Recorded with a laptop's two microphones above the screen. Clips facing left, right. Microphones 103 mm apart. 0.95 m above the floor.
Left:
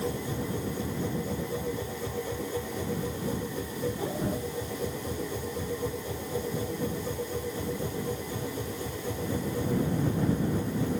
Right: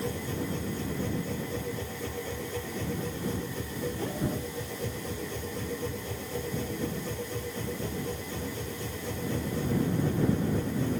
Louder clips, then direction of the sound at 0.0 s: Left 1 dB; 10° left (ahead or behind).